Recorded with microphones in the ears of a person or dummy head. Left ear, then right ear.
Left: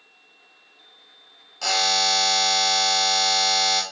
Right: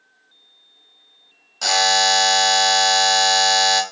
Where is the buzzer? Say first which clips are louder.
Right 4 dB; 15° right (ahead or behind), 0.6 m.